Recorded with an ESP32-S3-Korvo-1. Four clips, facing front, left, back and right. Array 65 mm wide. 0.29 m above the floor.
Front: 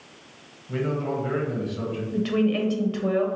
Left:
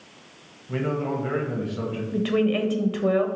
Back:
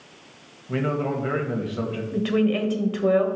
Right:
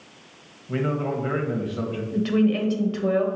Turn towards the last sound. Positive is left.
turn(degrees=120)